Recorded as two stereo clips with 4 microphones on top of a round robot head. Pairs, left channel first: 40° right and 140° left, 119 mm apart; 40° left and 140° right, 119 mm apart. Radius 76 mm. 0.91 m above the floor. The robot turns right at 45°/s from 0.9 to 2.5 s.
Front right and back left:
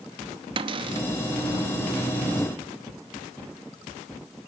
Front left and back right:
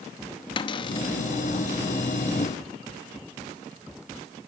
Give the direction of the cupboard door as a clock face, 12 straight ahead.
9 o'clock.